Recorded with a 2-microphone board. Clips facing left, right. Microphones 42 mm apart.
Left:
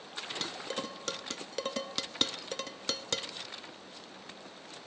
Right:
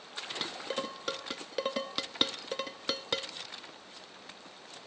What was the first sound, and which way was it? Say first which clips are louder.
Dishes clattering: right 3 dB; 10° right (ahead or behind).